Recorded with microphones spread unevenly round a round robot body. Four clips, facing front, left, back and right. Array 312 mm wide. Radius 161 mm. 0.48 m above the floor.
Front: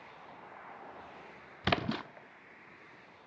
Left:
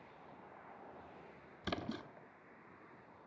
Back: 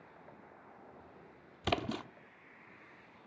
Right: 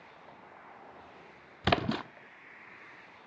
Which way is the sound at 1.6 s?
90° right.